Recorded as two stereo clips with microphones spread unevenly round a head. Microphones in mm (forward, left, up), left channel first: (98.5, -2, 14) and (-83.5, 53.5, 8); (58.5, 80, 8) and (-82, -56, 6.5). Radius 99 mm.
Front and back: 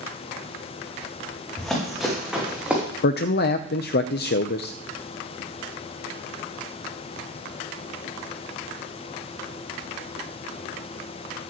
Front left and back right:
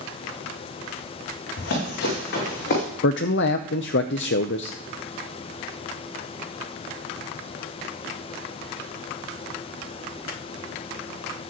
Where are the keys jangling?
No keys jangling in this recording.